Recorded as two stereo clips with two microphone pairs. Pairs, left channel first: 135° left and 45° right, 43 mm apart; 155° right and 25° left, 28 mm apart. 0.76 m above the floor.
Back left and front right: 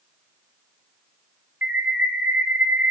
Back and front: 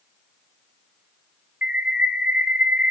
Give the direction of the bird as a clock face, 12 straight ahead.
12 o'clock.